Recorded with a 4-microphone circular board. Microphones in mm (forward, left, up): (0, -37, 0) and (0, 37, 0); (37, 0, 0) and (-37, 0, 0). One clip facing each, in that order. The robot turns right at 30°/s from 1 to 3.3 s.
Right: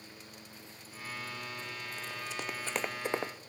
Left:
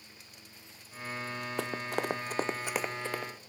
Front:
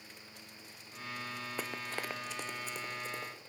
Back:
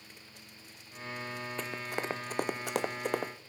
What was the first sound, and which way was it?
Running footsteps, 85° left.